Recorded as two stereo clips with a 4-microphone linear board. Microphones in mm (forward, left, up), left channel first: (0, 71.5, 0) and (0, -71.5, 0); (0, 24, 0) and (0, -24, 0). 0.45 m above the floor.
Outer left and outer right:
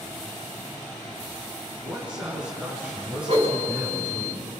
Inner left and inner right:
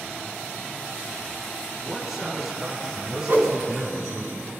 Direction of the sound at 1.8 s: 5° right (ahead or behind).